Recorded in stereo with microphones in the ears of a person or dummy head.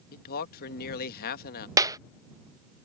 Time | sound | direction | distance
0.1 | a man speaking | 50° left (ahead or behind) | ?
1.8 | a clap | 20° right (ahead or behind) | ?